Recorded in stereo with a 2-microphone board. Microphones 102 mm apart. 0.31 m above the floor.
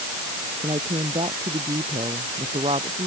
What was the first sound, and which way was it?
A woman speaking, 80° right.